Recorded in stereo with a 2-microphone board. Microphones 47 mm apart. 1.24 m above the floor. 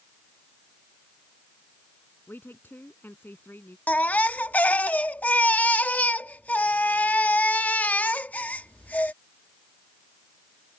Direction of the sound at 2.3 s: 45° left (ahead or behind).